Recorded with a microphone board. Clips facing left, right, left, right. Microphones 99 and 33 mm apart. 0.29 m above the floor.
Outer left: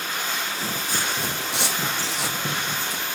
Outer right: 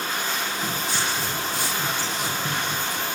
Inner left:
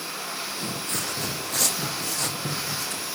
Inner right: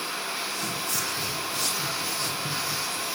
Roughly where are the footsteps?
Left.